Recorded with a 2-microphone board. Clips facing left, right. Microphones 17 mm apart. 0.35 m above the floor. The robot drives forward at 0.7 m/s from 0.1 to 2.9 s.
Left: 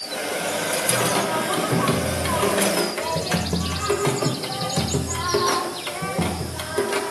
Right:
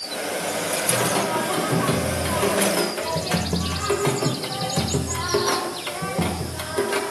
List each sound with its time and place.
0.9 s singing: 20° left (ahead or behind), 1.6 m; by 7.1 s 30° left (ahead or behind), 1.0 m